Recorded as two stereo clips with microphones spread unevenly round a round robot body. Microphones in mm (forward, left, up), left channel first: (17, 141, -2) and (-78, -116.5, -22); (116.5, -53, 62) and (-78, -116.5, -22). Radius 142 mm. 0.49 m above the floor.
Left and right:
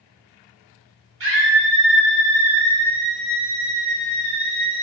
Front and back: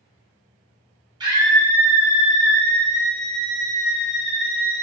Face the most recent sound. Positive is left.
turn(degrees=50)